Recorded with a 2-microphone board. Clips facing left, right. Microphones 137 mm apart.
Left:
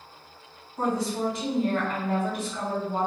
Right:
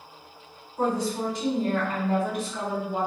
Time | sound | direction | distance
0.8 | a woman speaking | 5° left (ahead or behind) | 1.6 m